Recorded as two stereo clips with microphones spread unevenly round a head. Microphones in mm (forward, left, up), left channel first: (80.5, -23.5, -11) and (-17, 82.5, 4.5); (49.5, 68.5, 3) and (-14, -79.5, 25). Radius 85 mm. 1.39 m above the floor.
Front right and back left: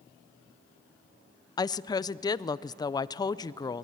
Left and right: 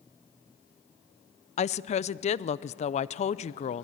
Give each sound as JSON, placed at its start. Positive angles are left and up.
{"t": 1.6, "sound": "a woman speaking", "azimuth_deg": 15, "distance_m": 0.5}